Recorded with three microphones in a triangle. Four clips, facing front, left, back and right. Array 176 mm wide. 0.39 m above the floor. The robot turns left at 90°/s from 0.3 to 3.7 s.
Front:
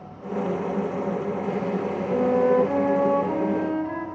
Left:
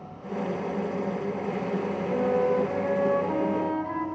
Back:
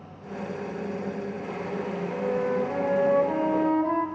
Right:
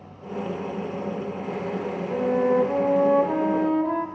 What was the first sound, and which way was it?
A flute, 25° left.